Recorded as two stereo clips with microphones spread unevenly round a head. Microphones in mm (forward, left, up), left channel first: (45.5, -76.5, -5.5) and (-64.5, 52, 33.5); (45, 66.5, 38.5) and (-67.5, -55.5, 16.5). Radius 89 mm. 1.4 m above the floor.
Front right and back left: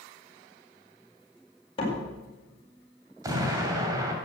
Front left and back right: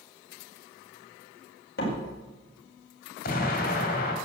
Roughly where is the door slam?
Ahead.